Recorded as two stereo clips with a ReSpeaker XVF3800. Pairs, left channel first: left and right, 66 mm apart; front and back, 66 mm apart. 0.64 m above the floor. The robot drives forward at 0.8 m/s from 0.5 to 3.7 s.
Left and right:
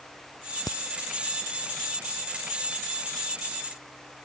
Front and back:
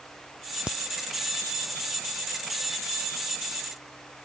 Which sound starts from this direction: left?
A crack, at 0.7 s.